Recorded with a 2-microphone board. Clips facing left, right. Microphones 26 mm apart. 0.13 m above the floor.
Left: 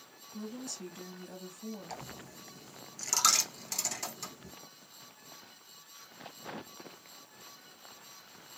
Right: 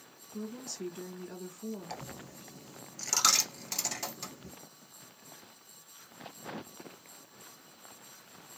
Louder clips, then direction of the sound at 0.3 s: Right 1 dB; 15° right (ahead or behind).